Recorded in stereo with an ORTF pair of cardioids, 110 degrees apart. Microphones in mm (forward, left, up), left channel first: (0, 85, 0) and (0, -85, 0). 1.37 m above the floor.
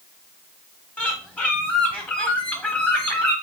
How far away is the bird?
About 0.9 m.